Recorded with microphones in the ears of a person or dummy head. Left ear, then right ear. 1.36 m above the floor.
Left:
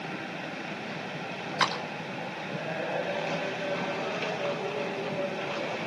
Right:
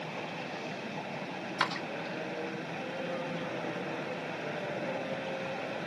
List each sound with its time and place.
1.6 s a clap: 15° right (ahead or behind), 4.5 m